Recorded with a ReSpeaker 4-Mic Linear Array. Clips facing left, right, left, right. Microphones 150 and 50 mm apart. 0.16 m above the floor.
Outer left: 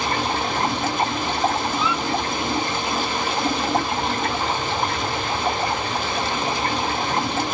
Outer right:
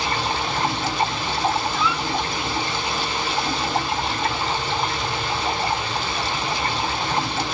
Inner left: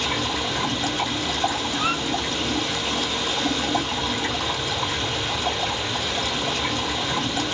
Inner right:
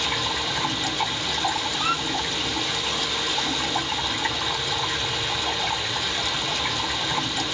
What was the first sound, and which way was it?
Running water, 45° left (ahead or behind).